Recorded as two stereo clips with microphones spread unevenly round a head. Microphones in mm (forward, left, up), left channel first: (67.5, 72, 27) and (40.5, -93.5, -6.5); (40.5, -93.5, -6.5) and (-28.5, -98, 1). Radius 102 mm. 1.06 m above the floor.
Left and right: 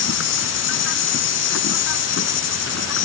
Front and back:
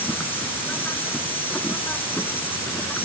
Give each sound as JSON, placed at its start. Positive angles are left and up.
{"t": 0.0, "sound": "an insect", "azimuth_deg": 85}